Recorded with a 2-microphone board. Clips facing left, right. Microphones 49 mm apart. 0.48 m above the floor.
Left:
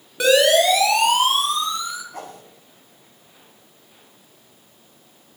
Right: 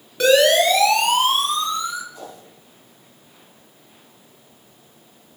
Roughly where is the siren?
Centre.